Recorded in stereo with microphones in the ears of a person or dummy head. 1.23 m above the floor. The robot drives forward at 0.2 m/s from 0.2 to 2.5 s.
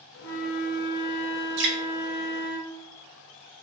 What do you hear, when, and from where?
0.2 s a flute: 65° left (ahead or behind), 1.5 m; by 2.6 s 50° left (ahead or behind), 1.7 m
1.6 s dripping: 50° right (ahead or behind), 0.8 m